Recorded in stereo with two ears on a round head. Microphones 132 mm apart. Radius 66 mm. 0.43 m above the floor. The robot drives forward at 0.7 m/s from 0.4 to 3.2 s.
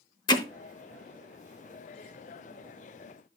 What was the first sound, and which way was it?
Hammering, 30° left (ahead or behind).